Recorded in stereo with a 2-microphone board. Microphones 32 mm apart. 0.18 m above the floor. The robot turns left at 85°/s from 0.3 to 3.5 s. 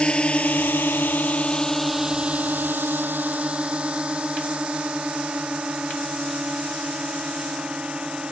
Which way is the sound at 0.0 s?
30° left (ahead or behind).